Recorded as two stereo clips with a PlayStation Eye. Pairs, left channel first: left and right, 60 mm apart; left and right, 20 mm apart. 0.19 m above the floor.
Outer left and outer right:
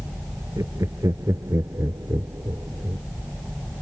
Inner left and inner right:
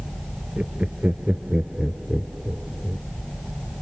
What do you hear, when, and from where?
0.6 s laughter: 70° right (ahead or behind); by 3.0 s 55° right (ahead or behind)